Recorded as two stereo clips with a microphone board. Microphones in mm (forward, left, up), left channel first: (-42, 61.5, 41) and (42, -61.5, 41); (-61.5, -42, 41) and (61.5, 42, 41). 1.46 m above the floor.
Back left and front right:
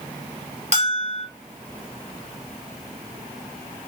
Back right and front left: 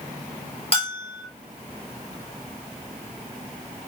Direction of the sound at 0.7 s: 95° right.